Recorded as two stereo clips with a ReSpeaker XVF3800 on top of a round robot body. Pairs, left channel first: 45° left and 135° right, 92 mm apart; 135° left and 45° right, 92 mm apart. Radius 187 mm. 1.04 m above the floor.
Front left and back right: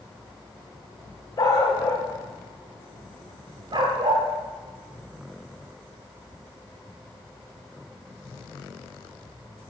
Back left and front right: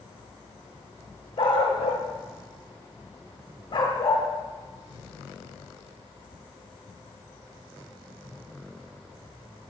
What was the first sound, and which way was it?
A dog barking, 100° left.